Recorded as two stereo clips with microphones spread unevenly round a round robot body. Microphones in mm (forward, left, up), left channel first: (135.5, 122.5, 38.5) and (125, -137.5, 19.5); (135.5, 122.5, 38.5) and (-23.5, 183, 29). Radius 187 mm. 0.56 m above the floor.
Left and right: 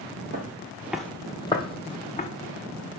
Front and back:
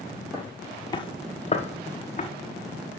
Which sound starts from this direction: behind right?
Footsteps, at 0.3 s.